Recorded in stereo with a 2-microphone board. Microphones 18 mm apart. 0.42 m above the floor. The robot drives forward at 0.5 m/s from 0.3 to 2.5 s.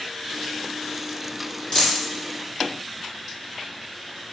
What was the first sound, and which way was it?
A dropped coin, 55° left (ahead or behind).